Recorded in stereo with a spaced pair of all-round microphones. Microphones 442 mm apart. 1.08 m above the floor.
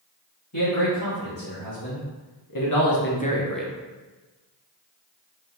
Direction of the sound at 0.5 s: 55° left (ahead or behind).